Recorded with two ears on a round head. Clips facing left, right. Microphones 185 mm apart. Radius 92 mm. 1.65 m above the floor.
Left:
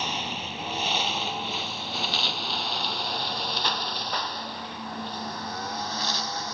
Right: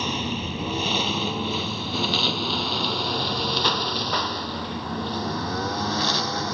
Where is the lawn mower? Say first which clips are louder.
Right 6 dB; 80° right; by 6.5 s 55° right (ahead or behind).